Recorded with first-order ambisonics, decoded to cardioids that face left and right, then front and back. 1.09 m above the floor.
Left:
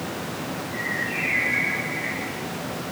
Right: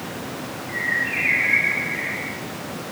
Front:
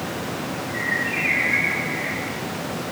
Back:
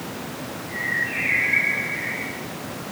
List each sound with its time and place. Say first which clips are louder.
0.7 s a bird: right 6 dB, even; 85° right, 1.6 m